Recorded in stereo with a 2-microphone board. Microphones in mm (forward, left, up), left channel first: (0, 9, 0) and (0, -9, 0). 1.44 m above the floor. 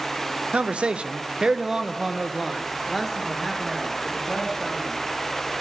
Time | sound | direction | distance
0.5 | a man speaking | 70° right (ahead or behind) | 0.6 m